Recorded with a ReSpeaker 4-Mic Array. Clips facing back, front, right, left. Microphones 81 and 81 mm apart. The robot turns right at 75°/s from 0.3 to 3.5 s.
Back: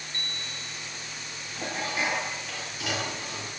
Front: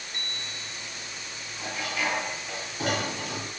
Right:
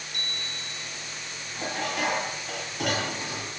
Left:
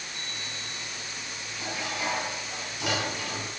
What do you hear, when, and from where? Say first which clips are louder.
0.1 s a bicycle bell: even, right 3 dB; 75° right, 5.5 m; by 0.9 s 30° right, 5.5 m
1.6 s dishes clattering: back 1 dB, right 4 dB; 145° right, 6.5 m; by 3.5 s straight ahead, 6.5 m